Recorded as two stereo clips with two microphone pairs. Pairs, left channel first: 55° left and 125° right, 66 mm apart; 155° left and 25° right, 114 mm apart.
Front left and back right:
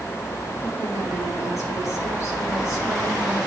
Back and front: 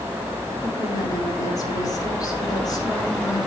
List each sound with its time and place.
0.6 s a woman speaking: 95° left, 5.5 m